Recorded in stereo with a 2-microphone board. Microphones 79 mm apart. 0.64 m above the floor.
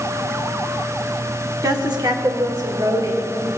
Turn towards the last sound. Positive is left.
turn(degrees=-65)  # may be behind; listen again after turning